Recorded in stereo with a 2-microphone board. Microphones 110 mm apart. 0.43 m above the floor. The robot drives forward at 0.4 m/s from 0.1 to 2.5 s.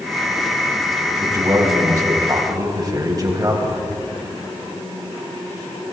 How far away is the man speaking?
About 3 m.